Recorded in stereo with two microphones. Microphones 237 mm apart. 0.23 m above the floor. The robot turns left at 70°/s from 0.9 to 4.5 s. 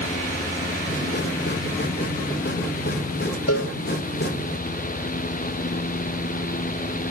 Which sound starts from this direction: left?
A cowbell, at 3.5 s.